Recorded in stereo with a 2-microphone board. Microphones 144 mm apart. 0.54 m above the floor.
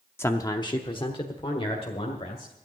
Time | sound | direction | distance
0.2 | a man speaking | 15° left (ahead or behind) | 0.6 m